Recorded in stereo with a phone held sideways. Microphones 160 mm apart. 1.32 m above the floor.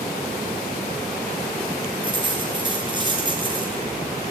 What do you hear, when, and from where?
2.0 s a dropped coin: 30° right (ahead or behind), 4 m